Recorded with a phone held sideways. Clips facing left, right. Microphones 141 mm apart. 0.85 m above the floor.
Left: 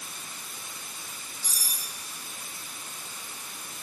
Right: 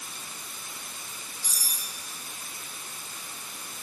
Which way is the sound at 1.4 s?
Centre (ahead or behind).